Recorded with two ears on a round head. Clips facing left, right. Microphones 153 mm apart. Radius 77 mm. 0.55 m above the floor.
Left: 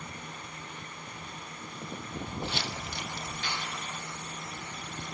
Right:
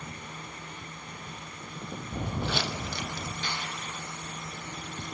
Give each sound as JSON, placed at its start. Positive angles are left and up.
{"t": 2.1, "sound": "footsteps", "side_deg": -45, "distance_m": 0.7}
{"t": 3.4, "sound": "a snare drum", "side_deg": -85, "distance_m": 9.0}